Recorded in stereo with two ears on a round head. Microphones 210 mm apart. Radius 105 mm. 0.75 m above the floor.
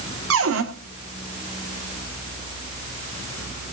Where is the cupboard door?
65° right (ahead or behind), 1.9 m.